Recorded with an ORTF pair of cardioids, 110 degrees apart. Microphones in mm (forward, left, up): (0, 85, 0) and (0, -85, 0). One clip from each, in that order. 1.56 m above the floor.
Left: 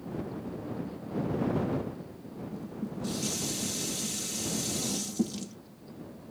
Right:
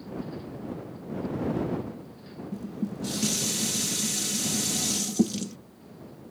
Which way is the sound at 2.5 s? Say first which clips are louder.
Right 5 dB; 35° right.